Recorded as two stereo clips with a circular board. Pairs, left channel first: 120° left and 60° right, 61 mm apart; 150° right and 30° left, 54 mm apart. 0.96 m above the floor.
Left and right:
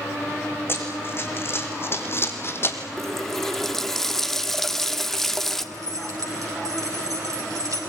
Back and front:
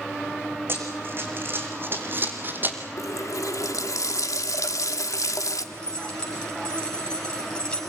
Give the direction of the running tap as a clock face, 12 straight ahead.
5 o'clock.